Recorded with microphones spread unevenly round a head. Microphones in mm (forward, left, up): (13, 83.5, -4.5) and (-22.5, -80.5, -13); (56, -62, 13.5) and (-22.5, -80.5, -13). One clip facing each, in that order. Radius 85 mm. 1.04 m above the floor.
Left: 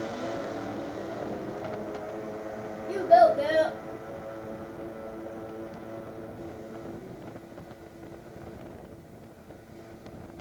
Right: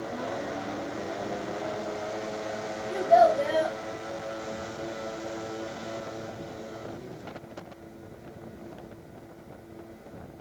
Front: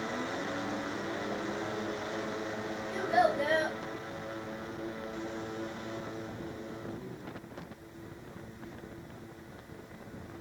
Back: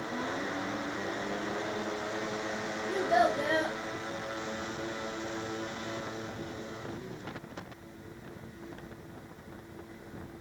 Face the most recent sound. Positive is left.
turn(degrees=140)